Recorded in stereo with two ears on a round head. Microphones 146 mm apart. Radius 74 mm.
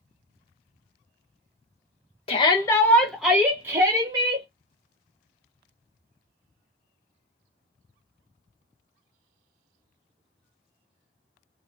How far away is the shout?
About 0.9 m.